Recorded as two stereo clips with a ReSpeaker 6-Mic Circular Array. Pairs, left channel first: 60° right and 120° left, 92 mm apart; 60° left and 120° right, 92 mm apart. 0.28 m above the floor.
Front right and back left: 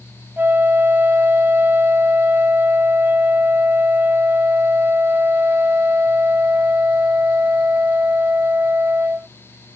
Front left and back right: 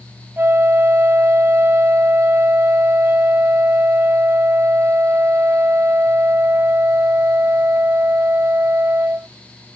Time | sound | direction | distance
0.4 | a flute | straight behind | ?